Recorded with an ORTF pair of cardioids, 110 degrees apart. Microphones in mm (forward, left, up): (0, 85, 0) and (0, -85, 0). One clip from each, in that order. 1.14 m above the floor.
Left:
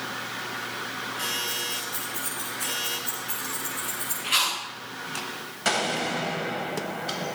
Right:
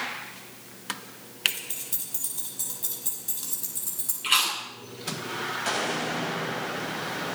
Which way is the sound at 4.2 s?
55° right.